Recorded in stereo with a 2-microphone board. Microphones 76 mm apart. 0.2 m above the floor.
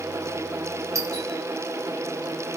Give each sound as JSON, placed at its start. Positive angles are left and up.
{"t": 0.9, "sound": "a doorbell", "side_deg": -45, "distance_m": 4.0}